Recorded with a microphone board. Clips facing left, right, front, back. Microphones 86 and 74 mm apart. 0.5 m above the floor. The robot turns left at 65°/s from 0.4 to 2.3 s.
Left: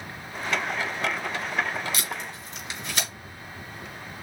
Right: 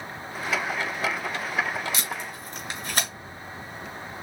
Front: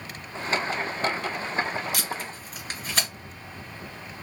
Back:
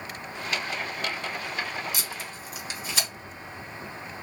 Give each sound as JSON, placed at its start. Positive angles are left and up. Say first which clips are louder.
{"t": 1.9, "sound": "tape being pulled", "louder": "right 1 dB, front 4 dB", "azimuth_deg": -25, "distance_m": 2.5}